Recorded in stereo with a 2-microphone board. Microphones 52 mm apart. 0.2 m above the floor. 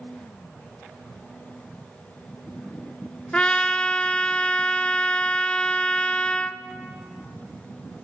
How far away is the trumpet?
About 0.6 m.